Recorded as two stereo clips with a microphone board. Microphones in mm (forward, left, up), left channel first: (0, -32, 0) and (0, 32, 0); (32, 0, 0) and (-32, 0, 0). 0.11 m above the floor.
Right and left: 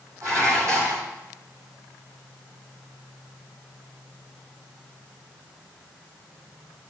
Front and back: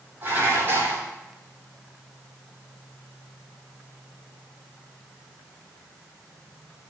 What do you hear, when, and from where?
0.2 s dishes clattering: 125° left, 3 m